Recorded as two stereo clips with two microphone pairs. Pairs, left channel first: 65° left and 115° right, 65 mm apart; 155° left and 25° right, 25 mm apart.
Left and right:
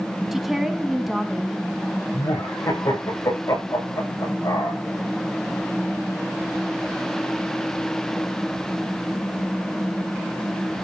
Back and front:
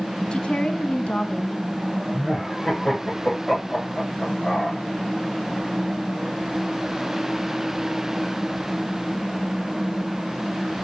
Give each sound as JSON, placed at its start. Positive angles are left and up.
{"t": 0.3, "sound": "a woman speaking", "azimuth_deg": 165, "distance_m": 1.3}
{"t": 2.1, "sound": "laughter", "azimuth_deg": 90, "distance_m": 7.0}